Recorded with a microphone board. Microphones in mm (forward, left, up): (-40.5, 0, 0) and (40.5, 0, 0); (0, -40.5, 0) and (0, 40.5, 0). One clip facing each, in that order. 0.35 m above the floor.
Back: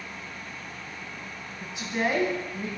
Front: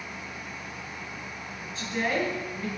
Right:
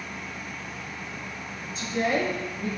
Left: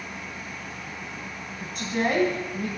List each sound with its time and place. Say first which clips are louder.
1.6 s a woman speaking: back 2 dB, left 1 dB; 110° left, 2.5 m